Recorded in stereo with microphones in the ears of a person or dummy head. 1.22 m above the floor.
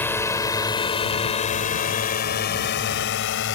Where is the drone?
5° left (ahead or behind); by 3.5 s 60° left (ahead or behind).